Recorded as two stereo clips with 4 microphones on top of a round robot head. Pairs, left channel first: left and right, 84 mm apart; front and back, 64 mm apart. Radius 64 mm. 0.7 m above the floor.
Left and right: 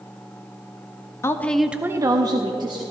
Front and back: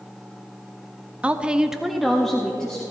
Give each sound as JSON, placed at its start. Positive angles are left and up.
{"t": 1.2, "sound": "a woman speaking", "azimuth_deg": 125, "distance_m": 0.7}